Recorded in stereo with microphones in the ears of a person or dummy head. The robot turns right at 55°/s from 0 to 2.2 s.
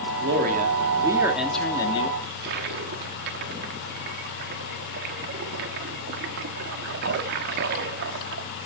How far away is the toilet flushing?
About 1.3 m.